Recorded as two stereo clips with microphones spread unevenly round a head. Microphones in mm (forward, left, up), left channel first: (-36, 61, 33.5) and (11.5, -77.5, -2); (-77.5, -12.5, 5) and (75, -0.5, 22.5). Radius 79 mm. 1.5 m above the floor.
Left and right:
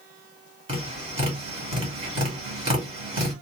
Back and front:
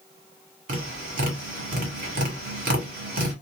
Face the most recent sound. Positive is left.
turn(degrees=-10)